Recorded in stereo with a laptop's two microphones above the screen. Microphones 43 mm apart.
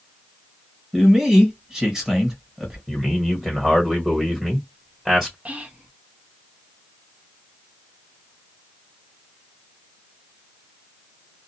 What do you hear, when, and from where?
0.9 s a man speaking: 15° right (ahead or behind), 1.6 m
2.9 s a man speaking: 15° right (ahead or behind), 1.4 m
5.5 s whispering: 35° right (ahead or behind), 0.8 m